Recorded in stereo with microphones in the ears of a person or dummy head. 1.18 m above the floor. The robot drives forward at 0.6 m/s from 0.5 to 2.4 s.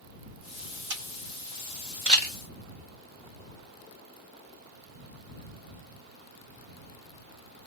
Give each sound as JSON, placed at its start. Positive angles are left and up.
{"t": 0.9, "sound": "a camera shutter", "side_deg": -65, "distance_m": 0.9}